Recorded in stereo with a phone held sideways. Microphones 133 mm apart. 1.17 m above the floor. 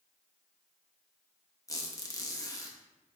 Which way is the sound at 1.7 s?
25° left (ahead or behind).